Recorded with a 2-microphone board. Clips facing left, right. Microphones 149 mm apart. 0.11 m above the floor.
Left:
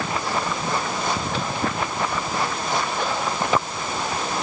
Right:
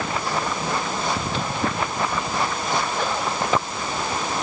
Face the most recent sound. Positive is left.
No sound to turn to.